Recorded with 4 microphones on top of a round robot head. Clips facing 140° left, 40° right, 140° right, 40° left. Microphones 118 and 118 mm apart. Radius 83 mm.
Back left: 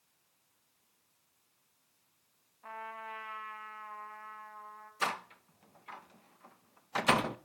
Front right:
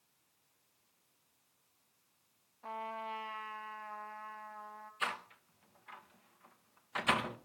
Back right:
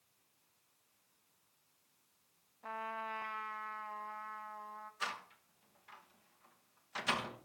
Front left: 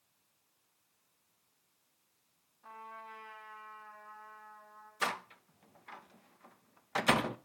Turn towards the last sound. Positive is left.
turn(degrees=80)